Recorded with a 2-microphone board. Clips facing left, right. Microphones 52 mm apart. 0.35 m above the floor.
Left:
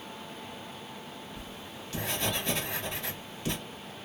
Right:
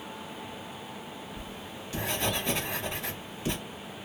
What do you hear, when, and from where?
1.4 s writing: 15° right (ahead or behind), 1.5 m